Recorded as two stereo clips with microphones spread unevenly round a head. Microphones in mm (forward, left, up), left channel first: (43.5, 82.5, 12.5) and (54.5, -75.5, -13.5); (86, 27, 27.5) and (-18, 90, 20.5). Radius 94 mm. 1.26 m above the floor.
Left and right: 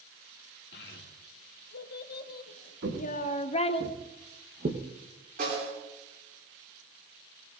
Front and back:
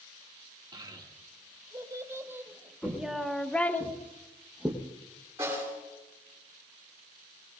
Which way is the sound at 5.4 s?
135° right.